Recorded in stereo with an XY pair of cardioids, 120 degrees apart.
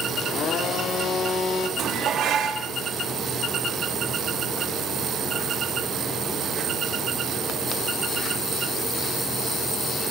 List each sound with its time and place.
0.2 s a blender: 55° left, 1.0 m
1.8 s dishes clattering: 60° right, 1.5 m